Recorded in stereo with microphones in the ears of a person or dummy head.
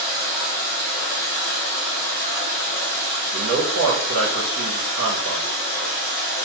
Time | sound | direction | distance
0.0 | running water | 5° left (ahead or behind) | 1.4 m
3.3 | a man speaking | 65° right (ahead or behind) | 0.8 m